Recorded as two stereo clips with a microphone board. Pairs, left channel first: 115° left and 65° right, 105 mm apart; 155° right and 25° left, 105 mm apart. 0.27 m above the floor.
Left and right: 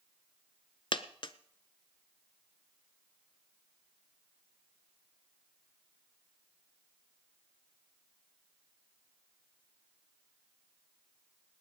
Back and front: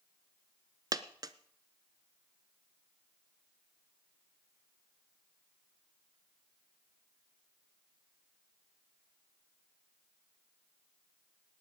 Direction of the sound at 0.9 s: 75° left.